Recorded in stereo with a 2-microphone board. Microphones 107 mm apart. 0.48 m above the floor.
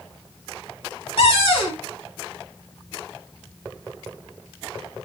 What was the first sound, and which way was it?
A cupboard door, 50° left (ahead or behind).